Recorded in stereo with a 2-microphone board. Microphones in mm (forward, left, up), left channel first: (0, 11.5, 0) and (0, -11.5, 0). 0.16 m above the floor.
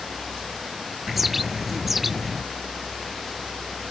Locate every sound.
1.1 s a bird: centre (ahead or behind)